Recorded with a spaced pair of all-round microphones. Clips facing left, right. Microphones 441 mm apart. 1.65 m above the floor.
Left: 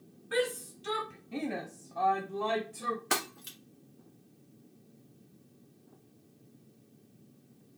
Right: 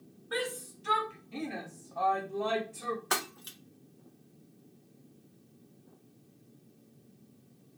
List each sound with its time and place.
0.3 s a shout: 40° left (ahead or behind), 1.4 m; by 3.0 s 5° left (ahead or behind), 1.3 m
3.1 s breaking glass: 40° left (ahead or behind), 1.3 m